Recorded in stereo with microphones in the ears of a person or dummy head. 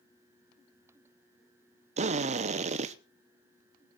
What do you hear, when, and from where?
2.0 s a drill: 30° right (ahead or behind), 0.7 m